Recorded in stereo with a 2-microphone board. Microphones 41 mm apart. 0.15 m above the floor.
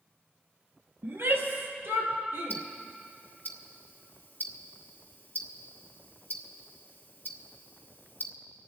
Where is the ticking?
50° left (ahead or behind), 1.1 m.